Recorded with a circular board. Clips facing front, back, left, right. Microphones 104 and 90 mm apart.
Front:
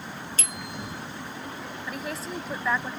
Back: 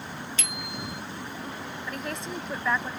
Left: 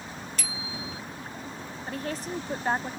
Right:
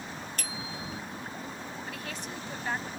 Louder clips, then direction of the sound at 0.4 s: Even, left 1 dB; 50° right.